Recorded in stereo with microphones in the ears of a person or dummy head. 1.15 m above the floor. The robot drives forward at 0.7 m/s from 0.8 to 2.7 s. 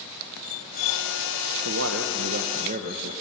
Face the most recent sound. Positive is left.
turn(degrees=-45)  # may be behind; listen again after turning